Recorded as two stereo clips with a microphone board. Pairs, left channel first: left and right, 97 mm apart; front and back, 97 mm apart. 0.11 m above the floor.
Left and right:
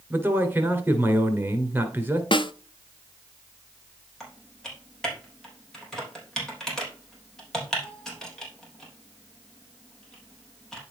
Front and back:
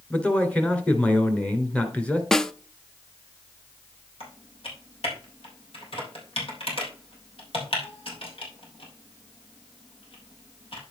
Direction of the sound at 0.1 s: 55° right.